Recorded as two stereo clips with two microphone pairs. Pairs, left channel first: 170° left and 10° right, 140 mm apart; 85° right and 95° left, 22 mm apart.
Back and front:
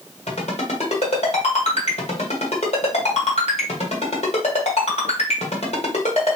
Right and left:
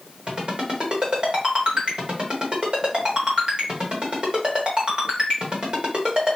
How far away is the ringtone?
About 1.8 m.